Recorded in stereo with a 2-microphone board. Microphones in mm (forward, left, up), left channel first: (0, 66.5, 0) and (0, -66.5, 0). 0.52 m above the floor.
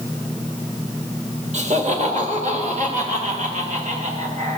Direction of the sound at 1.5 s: 60° right (ahead or behind).